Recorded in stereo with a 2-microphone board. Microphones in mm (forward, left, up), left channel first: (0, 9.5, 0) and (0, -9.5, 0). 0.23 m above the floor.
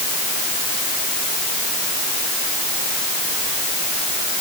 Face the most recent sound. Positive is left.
No sound to turn to.